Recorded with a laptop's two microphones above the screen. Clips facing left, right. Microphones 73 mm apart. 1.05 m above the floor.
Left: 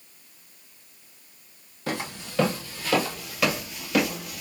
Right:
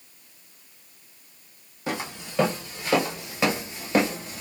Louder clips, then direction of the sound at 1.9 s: Even; 15° right (ahead or behind).